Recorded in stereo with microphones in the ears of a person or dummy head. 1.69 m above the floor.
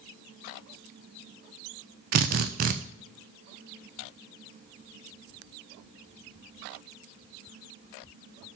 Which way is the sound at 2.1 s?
40° right (ahead or behind).